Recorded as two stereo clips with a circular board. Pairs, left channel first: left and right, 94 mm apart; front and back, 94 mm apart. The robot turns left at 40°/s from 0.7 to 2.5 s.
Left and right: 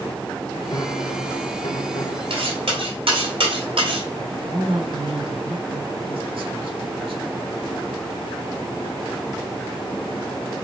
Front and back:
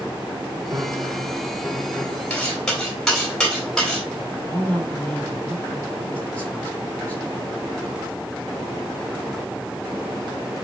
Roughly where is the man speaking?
Right.